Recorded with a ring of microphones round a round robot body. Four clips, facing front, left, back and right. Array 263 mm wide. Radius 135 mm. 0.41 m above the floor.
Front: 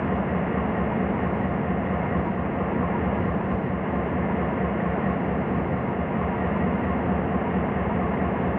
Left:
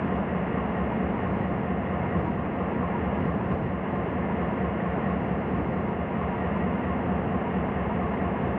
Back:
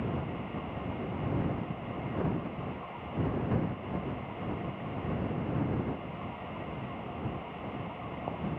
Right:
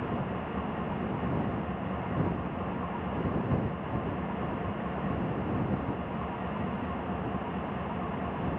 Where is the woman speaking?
No woman speaking in this recording.